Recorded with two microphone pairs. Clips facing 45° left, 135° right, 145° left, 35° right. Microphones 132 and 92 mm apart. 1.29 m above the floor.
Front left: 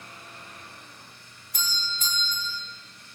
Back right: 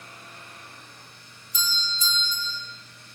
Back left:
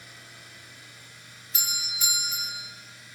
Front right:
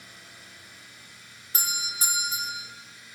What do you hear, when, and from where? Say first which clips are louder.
1.5 s a doorbell: back right 2 dB, front right 4 dB; 10° left, 5.5 m